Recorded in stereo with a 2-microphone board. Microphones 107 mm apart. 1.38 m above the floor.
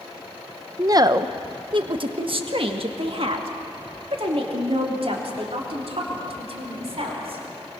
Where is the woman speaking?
30° right (ahead or behind), 0.7 m; by 7.4 s 65° right (ahead or behind), 4.5 m.